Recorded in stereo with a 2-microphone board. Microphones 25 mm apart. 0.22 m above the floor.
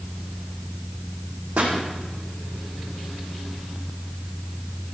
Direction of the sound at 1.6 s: 65° right (ahead or behind).